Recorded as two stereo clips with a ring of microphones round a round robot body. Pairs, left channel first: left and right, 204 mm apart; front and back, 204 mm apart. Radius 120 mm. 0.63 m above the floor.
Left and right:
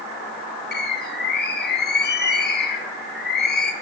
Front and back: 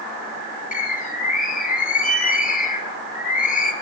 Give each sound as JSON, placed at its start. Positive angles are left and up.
{"t": 0.7, "sound": "a bird", "azimuth_deg": 50, "distance_m": 1.4}